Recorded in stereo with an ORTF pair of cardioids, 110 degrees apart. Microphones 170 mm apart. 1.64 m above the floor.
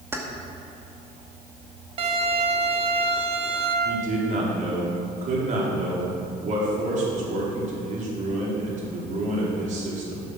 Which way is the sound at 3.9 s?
50° right.